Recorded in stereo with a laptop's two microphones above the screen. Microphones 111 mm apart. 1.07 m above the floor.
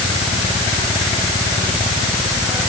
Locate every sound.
Only background noise.